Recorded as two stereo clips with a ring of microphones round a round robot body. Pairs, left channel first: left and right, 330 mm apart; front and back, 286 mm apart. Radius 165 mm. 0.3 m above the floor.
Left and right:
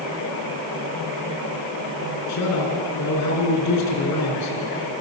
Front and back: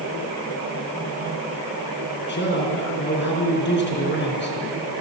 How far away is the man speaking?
About 4.5 m.